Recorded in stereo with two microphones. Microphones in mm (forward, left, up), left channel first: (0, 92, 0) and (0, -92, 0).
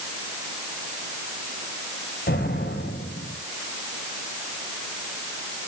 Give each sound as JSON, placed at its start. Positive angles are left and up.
{"t": 2.3, "sound": "an explosion", "side_deg": 65, "distance_m": 6.5}